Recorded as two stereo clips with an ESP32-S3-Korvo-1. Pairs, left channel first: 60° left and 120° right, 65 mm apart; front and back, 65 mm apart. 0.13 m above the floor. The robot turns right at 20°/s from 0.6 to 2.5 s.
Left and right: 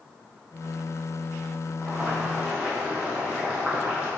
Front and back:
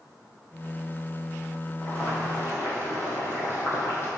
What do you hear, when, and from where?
1.8 s boiling: 70° right, 2 m; by 4.1 s 55° right, 2 m